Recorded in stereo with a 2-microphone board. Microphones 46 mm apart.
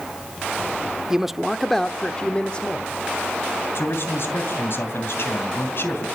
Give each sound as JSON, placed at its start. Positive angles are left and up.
{"t": 1.1, "sound": "a man speaking", "side_deg": -15, "distance_m": 0.7}
{"t": 3.8, "sound": "a man speaking", "side_deg": 60, "distance_m": 2.5}